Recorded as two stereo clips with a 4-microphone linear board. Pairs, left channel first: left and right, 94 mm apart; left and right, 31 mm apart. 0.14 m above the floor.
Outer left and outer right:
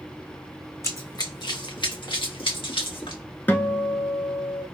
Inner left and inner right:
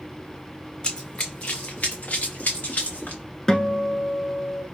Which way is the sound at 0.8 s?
30° left (ahead or behind).